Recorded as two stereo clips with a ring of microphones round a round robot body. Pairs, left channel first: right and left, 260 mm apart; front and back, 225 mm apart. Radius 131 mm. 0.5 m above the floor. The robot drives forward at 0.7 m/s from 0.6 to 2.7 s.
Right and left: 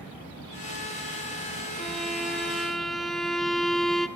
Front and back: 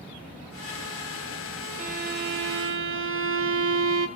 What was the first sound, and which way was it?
A violin, straight behind.